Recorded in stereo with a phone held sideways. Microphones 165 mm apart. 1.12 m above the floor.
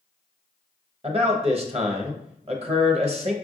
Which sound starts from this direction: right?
A man speaking, at 1.0 s.